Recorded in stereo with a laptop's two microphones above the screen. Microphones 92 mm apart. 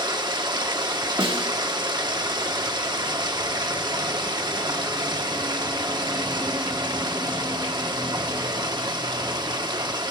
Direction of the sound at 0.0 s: 50° right (ahead or behind).